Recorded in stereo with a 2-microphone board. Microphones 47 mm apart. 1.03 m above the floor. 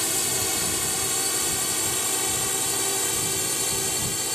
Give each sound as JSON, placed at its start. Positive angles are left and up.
{"t": 0.0, "sound": "a drone", "side_deg": 0}